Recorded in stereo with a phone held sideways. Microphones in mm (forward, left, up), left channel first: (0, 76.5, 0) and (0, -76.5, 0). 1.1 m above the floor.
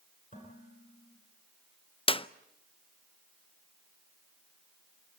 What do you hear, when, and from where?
0.3 s dishes clattering: 60° left (ahead or behind), 9.5 m
2.1 s a clap: 35° left (ahead or behind), 0.5 m